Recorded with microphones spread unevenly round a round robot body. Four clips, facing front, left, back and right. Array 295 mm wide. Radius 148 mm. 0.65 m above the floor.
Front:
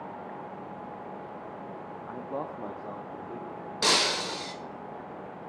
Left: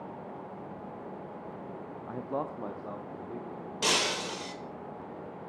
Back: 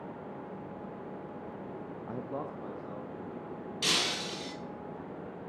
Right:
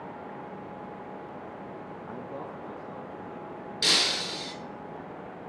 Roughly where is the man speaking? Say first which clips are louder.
Left 6 dB, front 3 dB; behind.